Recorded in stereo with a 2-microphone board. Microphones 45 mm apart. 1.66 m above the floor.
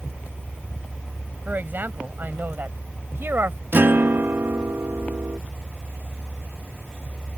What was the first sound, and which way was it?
A man speaking, 45° right (ahead or behind).